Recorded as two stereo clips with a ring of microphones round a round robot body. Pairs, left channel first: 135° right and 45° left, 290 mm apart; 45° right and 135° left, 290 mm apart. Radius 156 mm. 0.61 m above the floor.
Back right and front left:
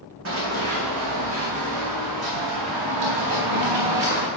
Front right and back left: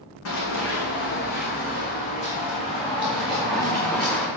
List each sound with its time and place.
0.2 s running footsteps: straight ahead, 2.5 m; by 4.3 s 40° left, 3 m